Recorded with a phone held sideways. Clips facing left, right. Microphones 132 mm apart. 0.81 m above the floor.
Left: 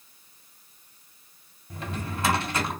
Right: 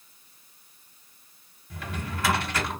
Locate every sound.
1.7 s a drawer: 25° left (ahead or behind), 1.3 m